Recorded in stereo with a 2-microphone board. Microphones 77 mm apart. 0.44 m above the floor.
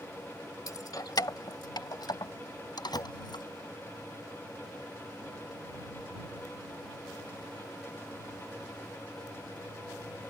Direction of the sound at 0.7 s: 50° left (ahead or behind).